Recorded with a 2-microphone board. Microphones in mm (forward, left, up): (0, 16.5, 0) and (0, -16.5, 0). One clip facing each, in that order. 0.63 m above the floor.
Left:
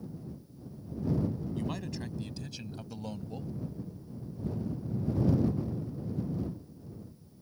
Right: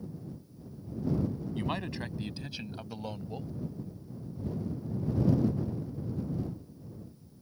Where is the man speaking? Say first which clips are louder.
Right 2 dB; 30° right (ahead or behind); by 3.5 s 10° right (ahead or behind).